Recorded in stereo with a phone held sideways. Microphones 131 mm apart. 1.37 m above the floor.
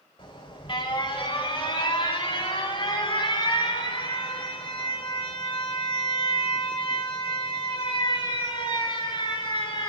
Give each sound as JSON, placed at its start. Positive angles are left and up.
{"t": 0.2, "sound": "an alarm", "side_deg": 40, "distance_m": 6.0}